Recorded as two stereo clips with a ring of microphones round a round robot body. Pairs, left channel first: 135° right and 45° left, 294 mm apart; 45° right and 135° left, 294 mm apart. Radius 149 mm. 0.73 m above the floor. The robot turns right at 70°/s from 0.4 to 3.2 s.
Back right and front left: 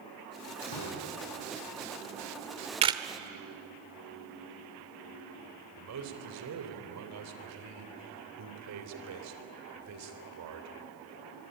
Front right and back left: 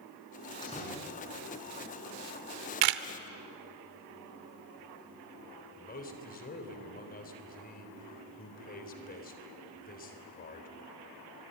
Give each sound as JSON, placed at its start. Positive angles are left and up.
{"t": 0.6, "sound": "a door slam", "azimuth_deg": -120, "distance_m": 7.5}
{"t": 2.8, "sound": "a camera shutter", "azimuth_deg": 115, "distance_m": 1.0}
{"t": 5.8, "sound": "a man speaking", "azimuth_deg": 15, "distance_m": 3.0}